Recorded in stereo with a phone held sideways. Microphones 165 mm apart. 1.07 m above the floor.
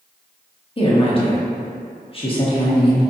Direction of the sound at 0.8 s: 35° left (ahead or behind).